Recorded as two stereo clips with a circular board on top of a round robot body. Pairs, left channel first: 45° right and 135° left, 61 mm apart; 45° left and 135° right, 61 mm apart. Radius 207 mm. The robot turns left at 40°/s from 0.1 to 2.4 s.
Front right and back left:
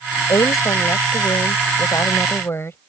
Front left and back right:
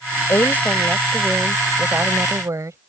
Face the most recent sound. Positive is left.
turn(degrees=-95)